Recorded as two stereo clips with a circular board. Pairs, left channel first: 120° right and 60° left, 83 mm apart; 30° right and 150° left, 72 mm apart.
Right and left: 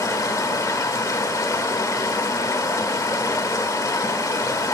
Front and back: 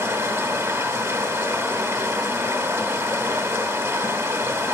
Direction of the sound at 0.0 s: 165° right.